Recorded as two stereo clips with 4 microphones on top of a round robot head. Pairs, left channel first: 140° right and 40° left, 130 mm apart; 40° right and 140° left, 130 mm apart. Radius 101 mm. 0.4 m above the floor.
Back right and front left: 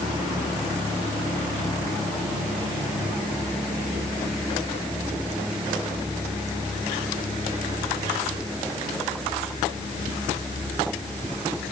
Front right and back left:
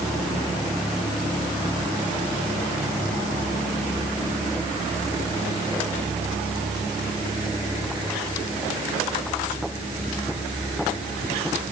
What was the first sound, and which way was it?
Only background noise.